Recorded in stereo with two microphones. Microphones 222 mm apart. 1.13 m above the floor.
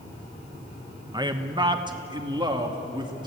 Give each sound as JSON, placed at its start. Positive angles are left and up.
{"t": 1.1, "sound": "a man speaking", "side_deg": -20, "distance_m": 1.1}